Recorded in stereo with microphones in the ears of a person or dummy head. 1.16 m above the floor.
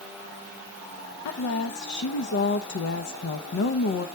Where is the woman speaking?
60° left (ahead or behind), 0.6 m.